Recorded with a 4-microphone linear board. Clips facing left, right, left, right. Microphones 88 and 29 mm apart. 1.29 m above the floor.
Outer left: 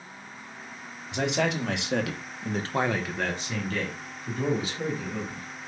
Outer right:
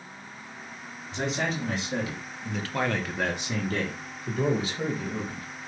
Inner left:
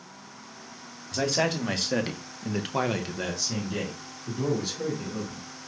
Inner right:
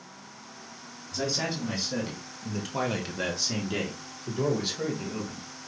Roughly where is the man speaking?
Left.